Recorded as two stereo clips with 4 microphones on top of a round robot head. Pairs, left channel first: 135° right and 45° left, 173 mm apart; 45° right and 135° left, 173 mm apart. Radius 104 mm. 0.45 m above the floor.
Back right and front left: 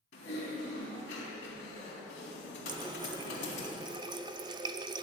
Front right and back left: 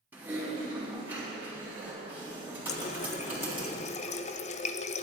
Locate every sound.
0.1 s typing on a keyboard: 150° right, 3.5 m
2.7 s a running tap: 10° right, 0.5 m